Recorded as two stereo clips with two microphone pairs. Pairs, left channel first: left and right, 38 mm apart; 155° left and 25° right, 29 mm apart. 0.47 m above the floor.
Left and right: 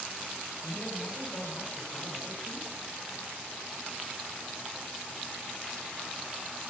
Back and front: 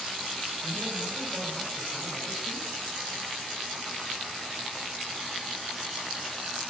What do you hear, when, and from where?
0.6 s a man speaking: 65° left, 3.5 m